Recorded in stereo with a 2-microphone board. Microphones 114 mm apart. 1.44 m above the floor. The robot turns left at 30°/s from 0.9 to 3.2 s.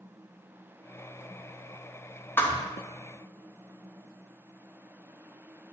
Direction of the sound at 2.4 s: 20° left (ahead or behind).